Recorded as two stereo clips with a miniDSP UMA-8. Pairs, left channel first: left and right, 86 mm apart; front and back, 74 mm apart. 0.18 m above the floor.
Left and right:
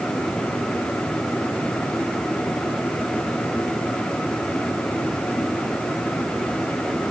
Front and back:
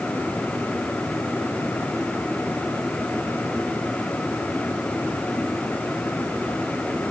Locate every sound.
Only background noise.